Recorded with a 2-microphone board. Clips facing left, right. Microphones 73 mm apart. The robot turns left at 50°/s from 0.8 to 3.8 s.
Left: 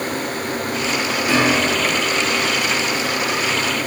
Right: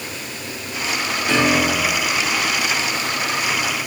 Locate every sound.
1.3 s a piano: 10° left, 3 m; by 2.1 s 30° right, 3 m